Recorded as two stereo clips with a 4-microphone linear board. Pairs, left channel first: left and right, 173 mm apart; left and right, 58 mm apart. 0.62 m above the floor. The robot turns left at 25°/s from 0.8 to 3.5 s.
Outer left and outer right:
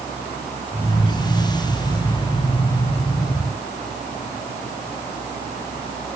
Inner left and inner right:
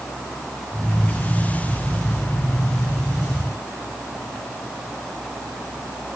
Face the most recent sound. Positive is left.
No sound to turn to.